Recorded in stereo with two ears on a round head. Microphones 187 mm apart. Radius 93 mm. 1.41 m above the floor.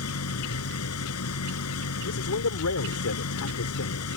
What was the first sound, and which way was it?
An engine running, 85° left.